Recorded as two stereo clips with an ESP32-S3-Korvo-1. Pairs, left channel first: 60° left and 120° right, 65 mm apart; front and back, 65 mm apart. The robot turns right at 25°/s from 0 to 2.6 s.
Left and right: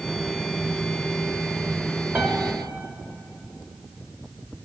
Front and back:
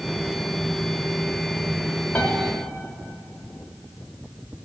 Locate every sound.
2.1 s a piano: 65° right, 0.7 m; by 2.4 s 60° right, 0.7 m